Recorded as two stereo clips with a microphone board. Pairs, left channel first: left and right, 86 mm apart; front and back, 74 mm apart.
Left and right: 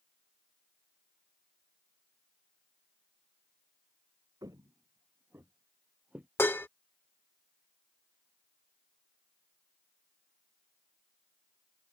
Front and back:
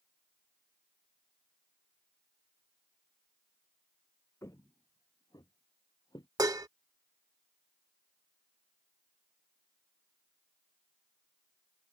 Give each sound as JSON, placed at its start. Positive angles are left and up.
{"t": 4.4, "sound": "footsteps", "azimuth_deg": -50}
{"t": 6.4, "sound": "dishes clattering", "azimuth_deg": 150}